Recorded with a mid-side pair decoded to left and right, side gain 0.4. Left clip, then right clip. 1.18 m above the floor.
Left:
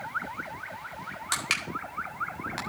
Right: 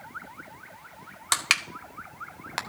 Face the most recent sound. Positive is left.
turn(degrees=-50)